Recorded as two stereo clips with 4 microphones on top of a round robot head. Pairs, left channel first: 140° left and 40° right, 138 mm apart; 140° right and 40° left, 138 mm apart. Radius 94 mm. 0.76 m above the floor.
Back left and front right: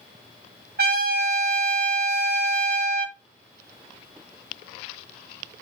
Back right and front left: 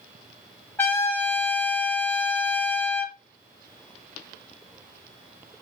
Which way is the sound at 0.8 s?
65° right.